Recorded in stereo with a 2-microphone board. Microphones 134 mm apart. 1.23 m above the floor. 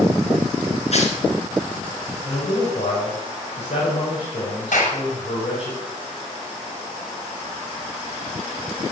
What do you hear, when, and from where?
0.9 s tearing paper: 55° left (ahead or behind), 3 m
2.2 s a man speaking: 55° left (ahead or behind), 6.5 m
4.7 s a clap: 80° left, 6 m